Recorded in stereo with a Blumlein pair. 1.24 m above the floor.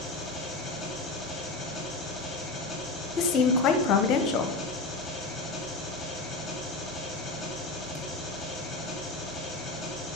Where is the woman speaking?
35° left, 1.0 m.